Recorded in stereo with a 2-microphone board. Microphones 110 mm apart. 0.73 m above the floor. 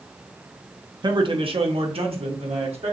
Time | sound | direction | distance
1.0 | a man speaking | 40° right (ahead or behind) | 0.7 m